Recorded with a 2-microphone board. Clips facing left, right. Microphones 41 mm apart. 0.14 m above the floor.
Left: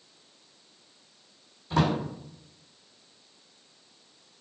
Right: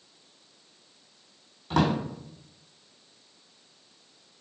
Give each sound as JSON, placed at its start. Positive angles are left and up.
{"t": 1.7, "sound": "a drawer", "side_deg": -65, "distance_m": 1.6}